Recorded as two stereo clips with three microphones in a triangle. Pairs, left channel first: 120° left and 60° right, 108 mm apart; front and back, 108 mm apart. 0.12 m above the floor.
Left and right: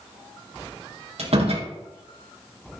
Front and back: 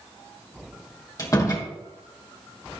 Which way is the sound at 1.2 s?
55° right.